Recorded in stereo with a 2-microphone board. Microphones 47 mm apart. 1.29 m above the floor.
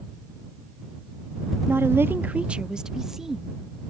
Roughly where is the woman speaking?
Right.